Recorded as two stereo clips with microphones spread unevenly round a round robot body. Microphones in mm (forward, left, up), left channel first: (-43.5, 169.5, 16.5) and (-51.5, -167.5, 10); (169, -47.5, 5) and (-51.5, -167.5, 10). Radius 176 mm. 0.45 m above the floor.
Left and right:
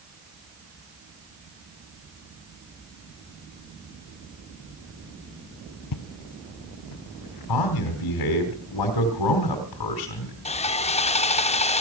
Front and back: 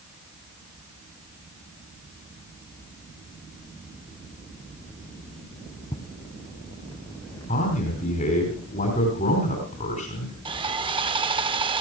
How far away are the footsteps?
About 0.8 m.